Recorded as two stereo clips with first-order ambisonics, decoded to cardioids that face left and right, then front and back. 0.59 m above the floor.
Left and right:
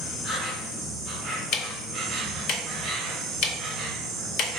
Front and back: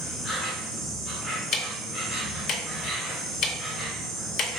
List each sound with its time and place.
0.0 s an insect: 40° right, 1.4 m
1.5 s ticking: 50° left, 0.5 m